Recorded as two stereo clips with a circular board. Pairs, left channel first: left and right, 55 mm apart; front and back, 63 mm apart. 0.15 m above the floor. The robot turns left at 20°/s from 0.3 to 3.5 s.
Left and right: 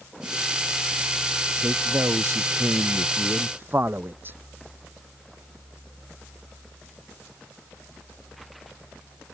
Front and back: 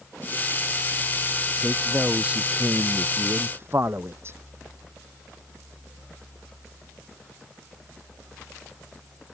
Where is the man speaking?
100° right; by 4.4 s 140° right.